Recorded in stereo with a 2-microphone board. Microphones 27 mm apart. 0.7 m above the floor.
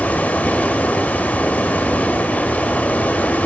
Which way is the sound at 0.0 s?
75° left (ahead or behind).